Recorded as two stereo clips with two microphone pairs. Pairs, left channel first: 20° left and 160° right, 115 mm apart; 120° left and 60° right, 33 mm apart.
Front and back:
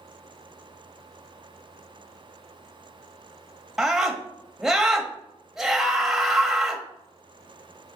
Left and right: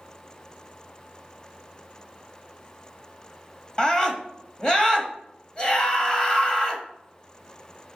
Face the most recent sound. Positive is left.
turn(degrees=115)